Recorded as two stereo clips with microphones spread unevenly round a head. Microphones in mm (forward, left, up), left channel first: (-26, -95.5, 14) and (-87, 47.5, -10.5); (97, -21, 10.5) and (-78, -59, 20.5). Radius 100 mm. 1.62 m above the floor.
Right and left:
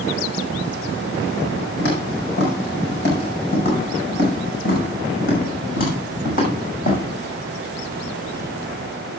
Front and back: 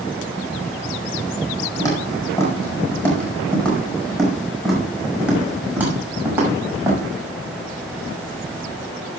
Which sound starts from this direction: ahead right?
Footsteps, at 1.8 s.